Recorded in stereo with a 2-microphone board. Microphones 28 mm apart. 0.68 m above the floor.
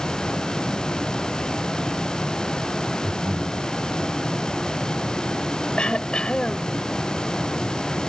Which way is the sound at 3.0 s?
85° right.